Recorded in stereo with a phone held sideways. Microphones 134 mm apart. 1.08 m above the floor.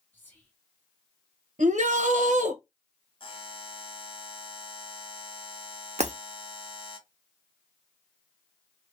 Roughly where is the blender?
No blender in this recording.